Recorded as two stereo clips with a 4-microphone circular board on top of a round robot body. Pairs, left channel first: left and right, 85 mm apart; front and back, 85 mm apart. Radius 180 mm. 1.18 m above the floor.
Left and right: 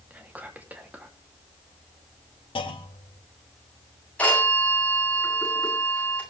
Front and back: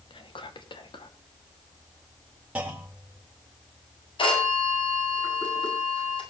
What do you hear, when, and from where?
0.1 s whispering: 20° right, 3 m
2.5 s a clunk: 105° left, 1.7 m
4.2 s a phone ringing: 15° left, 9.5 m